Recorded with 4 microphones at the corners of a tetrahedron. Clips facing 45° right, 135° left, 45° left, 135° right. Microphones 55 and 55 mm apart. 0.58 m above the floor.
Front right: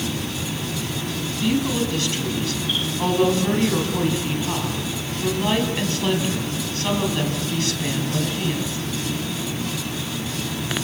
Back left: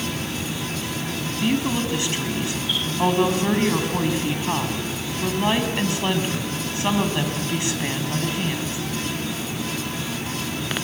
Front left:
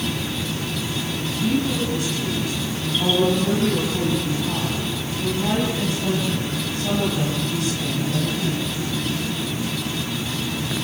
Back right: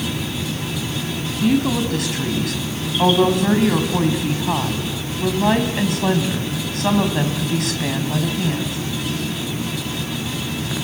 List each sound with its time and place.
1.4 s a woman speaking: 155° right, 4 m